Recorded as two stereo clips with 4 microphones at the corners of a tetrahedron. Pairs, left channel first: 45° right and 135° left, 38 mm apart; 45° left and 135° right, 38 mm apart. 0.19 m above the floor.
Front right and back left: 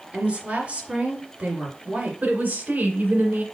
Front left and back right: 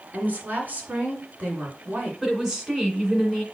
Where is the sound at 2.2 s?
155° left, 2 m.